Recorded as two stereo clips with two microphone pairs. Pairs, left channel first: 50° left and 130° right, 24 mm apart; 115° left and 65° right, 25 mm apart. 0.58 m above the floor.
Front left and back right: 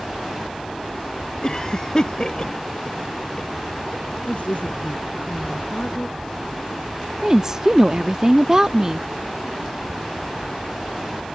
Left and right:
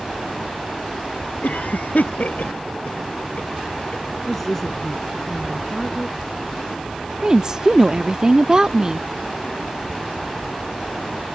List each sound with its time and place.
1.4 s a cough: 105° left
4.3 s a woman speaking: 35° left
7.2 s a woman speaking: 85° right